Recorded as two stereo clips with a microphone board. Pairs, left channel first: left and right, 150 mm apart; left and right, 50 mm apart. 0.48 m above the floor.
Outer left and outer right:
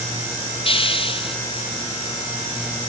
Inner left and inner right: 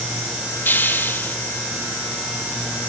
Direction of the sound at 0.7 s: 35° left (ahead or behind).